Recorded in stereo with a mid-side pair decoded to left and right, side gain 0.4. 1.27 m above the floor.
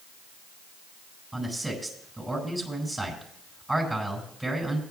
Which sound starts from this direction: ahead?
A man speaking, at 1.3 s.